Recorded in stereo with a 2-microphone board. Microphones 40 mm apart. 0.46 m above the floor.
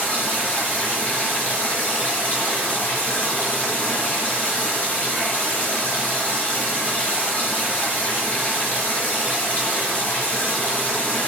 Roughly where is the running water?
Left.